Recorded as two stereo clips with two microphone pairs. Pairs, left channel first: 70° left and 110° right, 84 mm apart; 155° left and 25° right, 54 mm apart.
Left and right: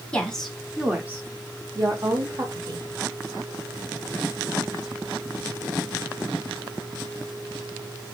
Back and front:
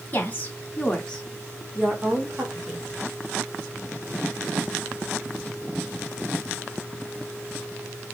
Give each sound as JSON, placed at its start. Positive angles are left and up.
{"t": 0.1, "sound": "a woman speaking", "azimuth_deg": 140, "distance_m": 1.0}